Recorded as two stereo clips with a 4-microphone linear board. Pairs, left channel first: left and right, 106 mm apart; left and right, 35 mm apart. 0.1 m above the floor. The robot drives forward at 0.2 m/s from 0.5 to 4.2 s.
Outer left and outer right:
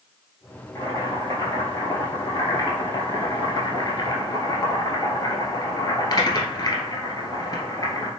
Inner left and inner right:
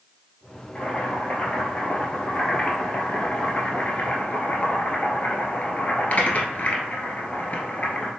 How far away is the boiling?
About 1.4 m.